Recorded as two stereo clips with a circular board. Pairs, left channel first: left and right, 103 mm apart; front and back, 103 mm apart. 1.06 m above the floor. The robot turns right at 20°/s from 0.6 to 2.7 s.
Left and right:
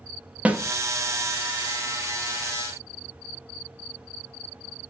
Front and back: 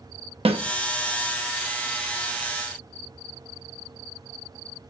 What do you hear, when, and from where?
0.5 s a snare drum: 165° right, 0.7 m